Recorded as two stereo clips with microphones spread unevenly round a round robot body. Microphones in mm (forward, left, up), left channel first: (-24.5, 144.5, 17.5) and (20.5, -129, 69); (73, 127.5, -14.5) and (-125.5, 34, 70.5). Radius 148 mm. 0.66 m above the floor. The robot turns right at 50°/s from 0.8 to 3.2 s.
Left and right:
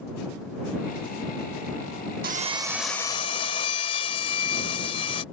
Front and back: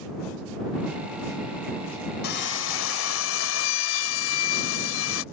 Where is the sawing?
20° right; by 5.2 s 30° left.